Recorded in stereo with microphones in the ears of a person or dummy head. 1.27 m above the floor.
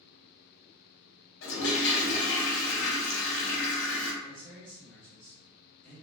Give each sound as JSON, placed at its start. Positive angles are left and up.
{"t": 1.4, "sound": "a toilet flushing", "side_deg": 65, "distance_m": 0.8}
{"t": 4.2, "sound": "a man speaking", "side_deg": 10, "distance_m": 1.6}